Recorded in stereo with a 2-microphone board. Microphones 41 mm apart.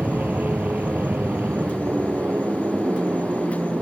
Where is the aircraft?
55° right (ahead or behind).